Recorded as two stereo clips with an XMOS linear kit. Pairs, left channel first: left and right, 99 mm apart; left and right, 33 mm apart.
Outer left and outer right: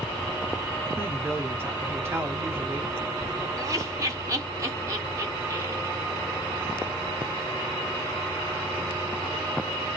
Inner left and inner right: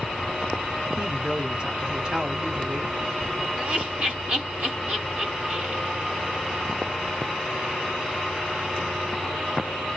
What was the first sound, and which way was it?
A woman speaking, 25° right (ahead or behind).